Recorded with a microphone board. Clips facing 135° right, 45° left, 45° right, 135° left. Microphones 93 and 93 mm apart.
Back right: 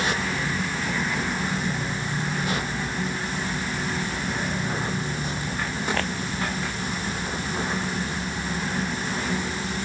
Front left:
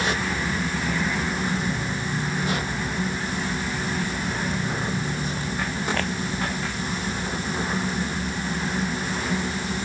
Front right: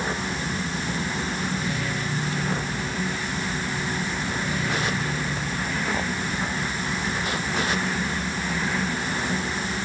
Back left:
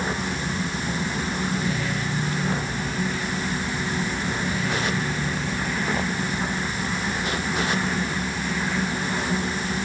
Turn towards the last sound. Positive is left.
No sound to turn to.